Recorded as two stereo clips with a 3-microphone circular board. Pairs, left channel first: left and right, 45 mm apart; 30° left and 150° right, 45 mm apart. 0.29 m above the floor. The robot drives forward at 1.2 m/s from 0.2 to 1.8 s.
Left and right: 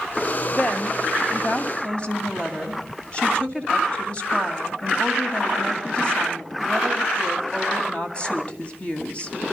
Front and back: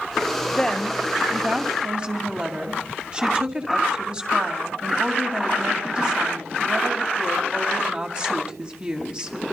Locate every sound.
0.5 s a woman speaking: 85° left, 1.4 m; by 9.3 s 150° left, 2 m